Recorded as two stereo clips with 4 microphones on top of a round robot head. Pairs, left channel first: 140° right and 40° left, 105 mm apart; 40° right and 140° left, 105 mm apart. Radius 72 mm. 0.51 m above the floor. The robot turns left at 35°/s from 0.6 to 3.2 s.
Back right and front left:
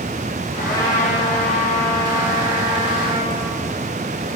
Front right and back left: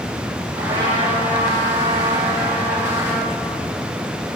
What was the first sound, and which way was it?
A trumpet, 170° left.